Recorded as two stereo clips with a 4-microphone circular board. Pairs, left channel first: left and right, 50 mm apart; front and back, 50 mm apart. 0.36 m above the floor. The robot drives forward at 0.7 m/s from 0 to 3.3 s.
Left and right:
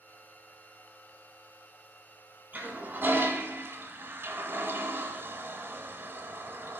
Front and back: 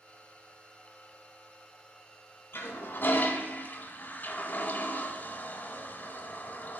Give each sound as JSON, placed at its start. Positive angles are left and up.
{"t": 2.5, "sound": "a toilet flushing", "azimuth_deg": -35, "distance_m": 1.7}